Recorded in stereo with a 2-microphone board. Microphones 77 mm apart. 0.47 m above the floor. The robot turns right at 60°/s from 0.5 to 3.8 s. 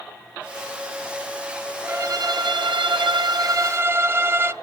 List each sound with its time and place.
1.9 s a violin: 145° right, 0.5 m; by 4.5 s 30° right, 0.5 m